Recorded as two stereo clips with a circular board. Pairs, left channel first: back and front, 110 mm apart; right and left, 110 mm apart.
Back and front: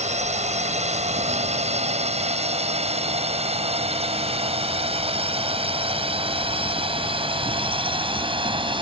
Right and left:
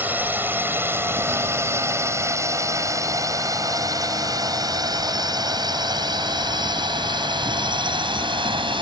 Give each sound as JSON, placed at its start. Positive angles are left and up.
{"t": 0.0, "sound": "a drone", "azimuth_deg": 15}